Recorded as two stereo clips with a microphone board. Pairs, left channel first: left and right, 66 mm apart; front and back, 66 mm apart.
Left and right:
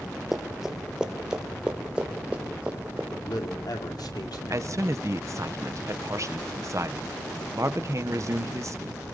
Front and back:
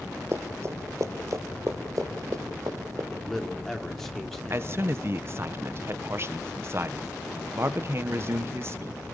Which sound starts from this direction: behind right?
A man speaking, at 4.5 s.